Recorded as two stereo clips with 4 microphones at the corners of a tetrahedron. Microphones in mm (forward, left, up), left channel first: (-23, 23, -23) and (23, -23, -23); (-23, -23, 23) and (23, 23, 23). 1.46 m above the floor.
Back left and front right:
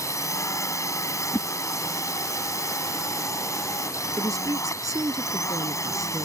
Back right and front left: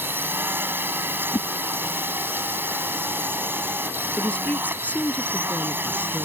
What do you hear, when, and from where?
0.0 s a drone: 100° left
1.3 s a whoosh: 165° right
4.2 s a woman speaking: 70° right